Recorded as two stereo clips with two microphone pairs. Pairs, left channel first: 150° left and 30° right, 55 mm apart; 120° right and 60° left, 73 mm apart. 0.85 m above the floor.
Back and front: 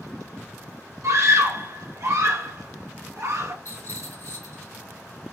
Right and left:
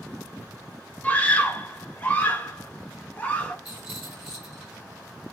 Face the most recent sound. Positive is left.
turn(degrees=145)